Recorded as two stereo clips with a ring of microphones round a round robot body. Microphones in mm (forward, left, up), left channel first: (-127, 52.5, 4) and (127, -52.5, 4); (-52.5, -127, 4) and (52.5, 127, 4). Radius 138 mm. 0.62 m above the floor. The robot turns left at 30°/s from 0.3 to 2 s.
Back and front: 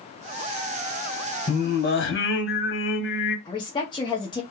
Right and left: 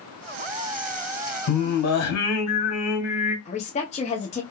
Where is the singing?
135° right, 1.0 m; by 3.4 s 150° right, 1.0 m.